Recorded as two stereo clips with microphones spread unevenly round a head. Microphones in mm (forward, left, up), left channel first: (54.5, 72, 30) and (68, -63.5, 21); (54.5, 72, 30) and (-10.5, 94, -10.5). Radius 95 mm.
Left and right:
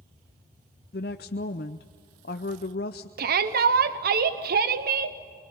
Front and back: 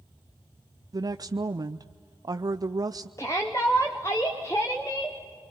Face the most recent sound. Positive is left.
turn(degrees=-95)